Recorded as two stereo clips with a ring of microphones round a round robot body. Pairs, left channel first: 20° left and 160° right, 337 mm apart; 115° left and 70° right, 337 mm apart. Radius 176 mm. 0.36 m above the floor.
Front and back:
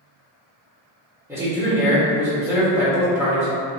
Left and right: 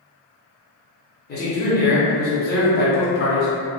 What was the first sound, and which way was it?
A man speaking, 130° left.